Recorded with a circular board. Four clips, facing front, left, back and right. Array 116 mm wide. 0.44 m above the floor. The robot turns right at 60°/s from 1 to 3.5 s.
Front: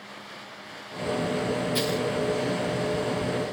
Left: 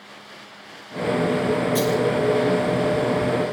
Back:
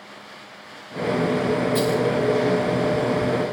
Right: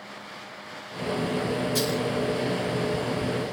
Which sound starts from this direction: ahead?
A dropped coin, at 1.8 s.